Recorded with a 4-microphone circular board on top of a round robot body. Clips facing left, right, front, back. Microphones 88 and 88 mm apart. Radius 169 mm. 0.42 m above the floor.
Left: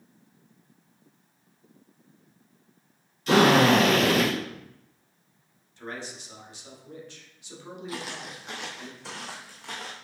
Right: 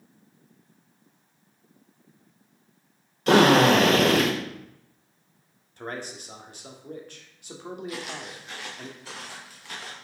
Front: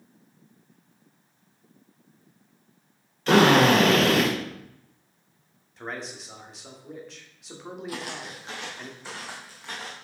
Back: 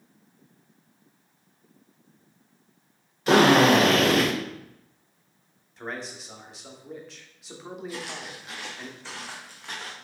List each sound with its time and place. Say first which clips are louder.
3.3 s a drill: right 2 dB, even; 105° right, 2.5 m
5.8 s a man speaking: right 3 dB, even; 90° right, 1.7 m
7.9 s footsteps: right 1 dB, front 1 dB; 25° left, 1.0 m; by 9.9 s 90° left, 2.5 m